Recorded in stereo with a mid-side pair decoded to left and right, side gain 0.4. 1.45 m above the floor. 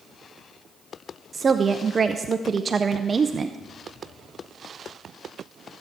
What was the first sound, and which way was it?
A woman speaking, 40° right.